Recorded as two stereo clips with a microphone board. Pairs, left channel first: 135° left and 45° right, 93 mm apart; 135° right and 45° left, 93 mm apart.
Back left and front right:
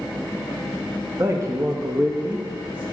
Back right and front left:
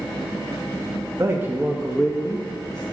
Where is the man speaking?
Straight ahead, 1.1 m; by 2.8 s 120° right, 1.1 m.